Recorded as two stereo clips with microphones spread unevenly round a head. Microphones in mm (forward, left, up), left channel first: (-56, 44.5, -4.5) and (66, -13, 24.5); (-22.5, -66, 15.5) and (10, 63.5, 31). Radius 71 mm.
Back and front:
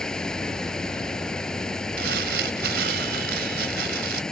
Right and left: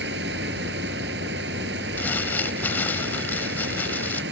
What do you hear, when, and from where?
0.0 s running water: 65° left
2.0 s crumpling: 25° right